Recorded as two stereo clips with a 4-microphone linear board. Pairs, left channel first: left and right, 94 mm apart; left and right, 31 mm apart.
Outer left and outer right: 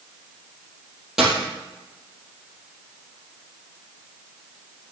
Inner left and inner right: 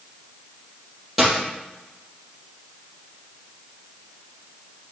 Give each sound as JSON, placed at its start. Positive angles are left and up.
{"t": 1.2, "sound": "a dropped coin", "side_deg": -5, "distance_m": 2.5}